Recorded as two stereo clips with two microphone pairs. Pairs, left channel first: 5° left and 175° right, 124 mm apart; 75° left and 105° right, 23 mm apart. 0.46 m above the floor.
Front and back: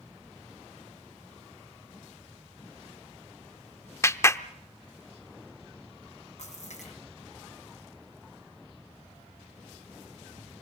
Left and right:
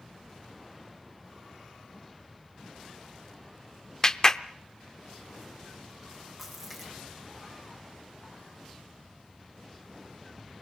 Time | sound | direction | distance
4.0 | a clap | 55° left | 0.6 m
6.4 | a splash | 20° right | 6.5 m